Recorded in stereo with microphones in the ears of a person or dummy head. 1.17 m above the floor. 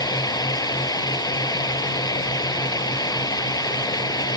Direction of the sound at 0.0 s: 20° left (ahead or behind).